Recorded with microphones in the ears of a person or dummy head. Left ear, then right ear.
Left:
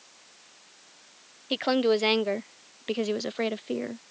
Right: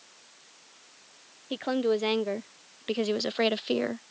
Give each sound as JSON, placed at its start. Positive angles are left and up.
{"t": 1.5, "sound": "a woman speaking", "side_deg": 30}